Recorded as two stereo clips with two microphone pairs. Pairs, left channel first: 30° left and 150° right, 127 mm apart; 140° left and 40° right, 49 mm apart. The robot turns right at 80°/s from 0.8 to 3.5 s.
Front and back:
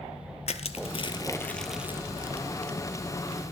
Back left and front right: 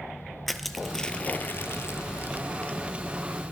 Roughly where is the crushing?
Ahead left.